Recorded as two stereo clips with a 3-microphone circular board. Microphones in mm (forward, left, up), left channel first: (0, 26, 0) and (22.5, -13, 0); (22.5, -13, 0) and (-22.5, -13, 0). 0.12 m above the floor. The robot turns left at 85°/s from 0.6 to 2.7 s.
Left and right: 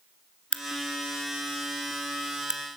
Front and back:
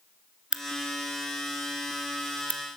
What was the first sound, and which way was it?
A crack, 150° left.